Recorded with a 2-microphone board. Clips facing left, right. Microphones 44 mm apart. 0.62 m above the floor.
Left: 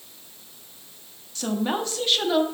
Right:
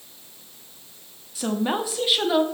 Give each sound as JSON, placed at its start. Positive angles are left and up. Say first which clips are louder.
{"t": 1.4, "sound": "a woman speaking", "louder": "right 1 dB", "side_deg": -5, "distance_m": 0.9}